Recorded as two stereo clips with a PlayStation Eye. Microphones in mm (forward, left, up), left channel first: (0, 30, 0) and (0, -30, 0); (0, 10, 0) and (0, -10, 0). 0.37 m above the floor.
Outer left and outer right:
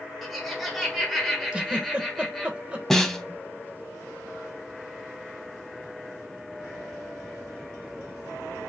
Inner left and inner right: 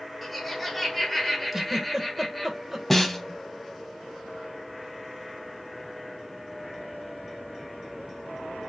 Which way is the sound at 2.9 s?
5° left (ahead or behind).